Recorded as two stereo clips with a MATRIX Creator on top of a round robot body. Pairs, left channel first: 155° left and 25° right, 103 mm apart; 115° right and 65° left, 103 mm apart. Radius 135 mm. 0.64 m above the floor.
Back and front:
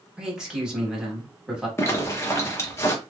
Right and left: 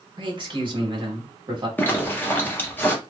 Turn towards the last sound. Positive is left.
turn(degrees=-165)